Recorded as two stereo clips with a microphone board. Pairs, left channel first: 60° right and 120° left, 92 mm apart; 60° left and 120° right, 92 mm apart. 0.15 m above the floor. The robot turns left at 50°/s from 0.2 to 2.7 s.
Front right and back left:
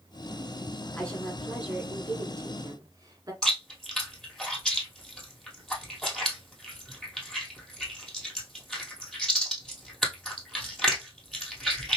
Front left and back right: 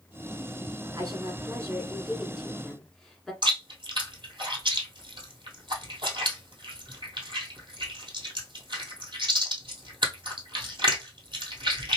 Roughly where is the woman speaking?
Behind right.